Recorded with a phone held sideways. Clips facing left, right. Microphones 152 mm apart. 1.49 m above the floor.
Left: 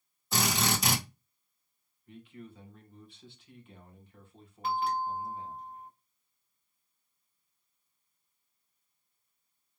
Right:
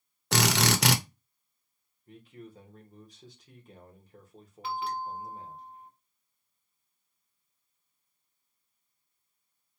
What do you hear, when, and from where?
0.3 s a drill: 75° right (ahead or behind), 0.8 m
2.1 s a man speaking: 40° right (ahead or behind), 1.8 m
4.6 s a bell: 45° left (ahead or behind), 1.5 m